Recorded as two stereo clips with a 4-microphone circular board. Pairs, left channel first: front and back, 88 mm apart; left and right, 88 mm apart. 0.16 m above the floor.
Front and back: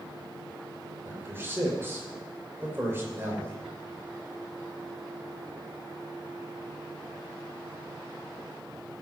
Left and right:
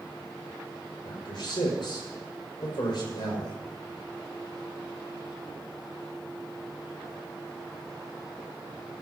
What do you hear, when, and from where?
1.1 s a man speaking: 120° left, 6 m